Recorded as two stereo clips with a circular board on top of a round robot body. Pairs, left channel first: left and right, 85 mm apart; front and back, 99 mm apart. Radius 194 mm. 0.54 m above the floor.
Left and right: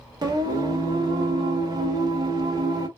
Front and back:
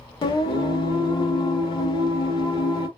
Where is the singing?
45° right, 0.5 m.